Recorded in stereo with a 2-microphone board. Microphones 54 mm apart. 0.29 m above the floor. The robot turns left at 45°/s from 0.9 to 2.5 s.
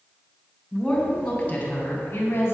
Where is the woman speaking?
175° left, 2.5 m; by 2.5 s 105° left, 2.5 m.